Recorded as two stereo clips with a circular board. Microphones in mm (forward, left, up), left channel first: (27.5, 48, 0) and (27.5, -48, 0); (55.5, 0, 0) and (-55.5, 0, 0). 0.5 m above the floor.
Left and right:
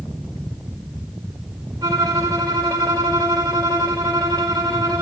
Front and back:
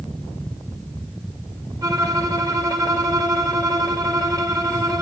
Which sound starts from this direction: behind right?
A violin, at 1.8 s.